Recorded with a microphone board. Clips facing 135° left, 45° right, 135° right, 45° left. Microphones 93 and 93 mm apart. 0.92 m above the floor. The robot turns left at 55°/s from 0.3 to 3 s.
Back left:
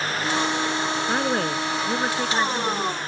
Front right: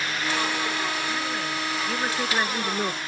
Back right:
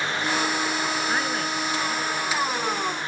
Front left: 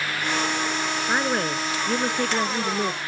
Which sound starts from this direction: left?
A woman speaking, at 1.1 s.